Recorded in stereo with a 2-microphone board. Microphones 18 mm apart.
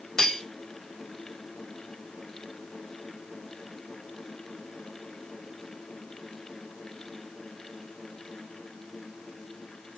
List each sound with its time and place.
0.2 s cutlery clinking: 40° left (ahead or behind), 0.7 m